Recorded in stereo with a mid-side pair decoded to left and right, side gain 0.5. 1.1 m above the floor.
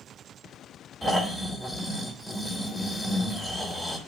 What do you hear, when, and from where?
1.0 s snoring: 10° left, 2.5 m